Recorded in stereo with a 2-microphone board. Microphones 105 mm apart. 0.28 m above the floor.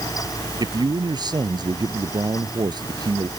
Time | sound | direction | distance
0.6 | a man speaking | 40° right (ahead or behind) | ?